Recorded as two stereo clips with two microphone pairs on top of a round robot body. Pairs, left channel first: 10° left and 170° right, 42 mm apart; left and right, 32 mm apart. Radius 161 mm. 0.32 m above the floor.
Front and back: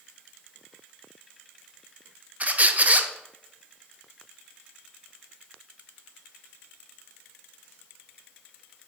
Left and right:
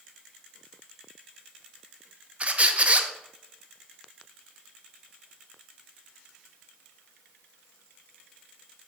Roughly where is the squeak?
Behind right.